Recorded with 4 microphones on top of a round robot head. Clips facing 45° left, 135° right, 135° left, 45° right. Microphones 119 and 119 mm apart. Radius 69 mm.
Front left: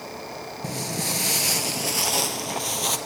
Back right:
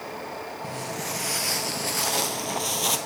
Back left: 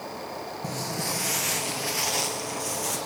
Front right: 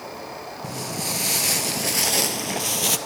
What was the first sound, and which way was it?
Footsteps, 35° left.